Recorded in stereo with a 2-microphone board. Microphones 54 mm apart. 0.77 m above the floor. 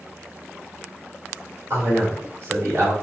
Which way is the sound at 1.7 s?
50° right (ahead or behind).